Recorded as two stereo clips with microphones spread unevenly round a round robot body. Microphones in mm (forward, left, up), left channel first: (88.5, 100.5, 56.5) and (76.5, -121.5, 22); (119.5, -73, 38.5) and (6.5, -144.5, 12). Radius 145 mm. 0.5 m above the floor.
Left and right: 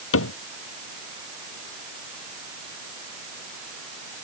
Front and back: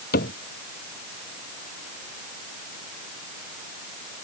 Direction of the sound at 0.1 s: 65° left.